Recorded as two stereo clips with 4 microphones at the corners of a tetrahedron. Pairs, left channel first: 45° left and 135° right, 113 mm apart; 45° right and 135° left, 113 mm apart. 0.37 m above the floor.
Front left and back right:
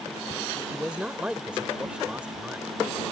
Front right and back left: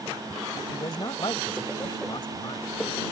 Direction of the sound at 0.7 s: 60° right.